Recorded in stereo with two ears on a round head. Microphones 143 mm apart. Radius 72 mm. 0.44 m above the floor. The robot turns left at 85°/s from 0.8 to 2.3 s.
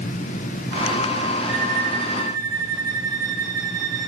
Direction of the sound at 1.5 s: 95° right.